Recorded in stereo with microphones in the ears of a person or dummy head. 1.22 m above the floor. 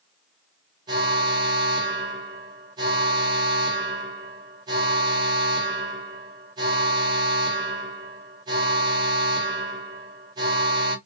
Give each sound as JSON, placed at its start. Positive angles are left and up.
{"t": 0.9, "sound": "an alarm", "side_deg": -25, "distance_m": 0.9}